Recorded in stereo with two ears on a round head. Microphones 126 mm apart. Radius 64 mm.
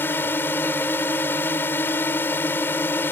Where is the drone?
15° left (ahead or behind).